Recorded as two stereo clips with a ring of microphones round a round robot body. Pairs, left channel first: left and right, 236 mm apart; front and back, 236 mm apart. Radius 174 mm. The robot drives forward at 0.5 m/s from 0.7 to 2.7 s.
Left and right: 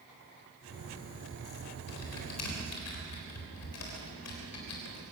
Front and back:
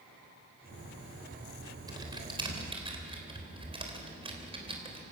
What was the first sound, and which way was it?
Typing on a keyboard, 105° left.